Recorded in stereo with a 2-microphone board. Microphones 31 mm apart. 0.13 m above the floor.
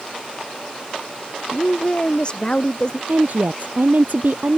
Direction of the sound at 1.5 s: 35° left (ahead or behind).